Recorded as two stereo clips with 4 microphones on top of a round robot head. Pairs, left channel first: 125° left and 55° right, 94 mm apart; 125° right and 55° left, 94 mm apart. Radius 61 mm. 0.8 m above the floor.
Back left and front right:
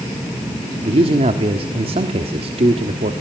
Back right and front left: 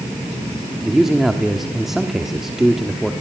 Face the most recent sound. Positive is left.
turn(degrees=-35)